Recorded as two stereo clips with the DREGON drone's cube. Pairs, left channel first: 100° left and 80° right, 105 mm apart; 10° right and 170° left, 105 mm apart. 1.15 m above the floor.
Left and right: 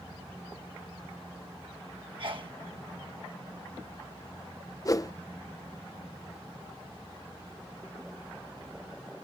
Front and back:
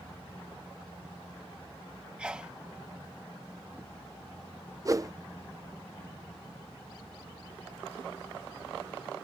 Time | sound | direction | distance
2.2 | a sneeze | 110° right | ?
4.8 | a whoosh | 130° left | ?